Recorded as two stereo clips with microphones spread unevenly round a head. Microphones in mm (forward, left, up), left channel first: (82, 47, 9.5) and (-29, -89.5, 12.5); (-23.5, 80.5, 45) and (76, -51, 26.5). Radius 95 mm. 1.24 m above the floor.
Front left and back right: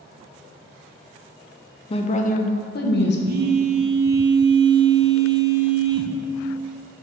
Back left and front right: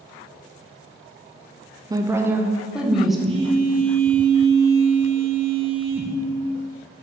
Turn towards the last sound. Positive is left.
turn(degrees=-105)